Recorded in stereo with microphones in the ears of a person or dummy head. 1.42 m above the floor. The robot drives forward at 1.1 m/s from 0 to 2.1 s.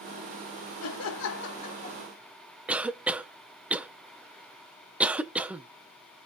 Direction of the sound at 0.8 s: 85° left.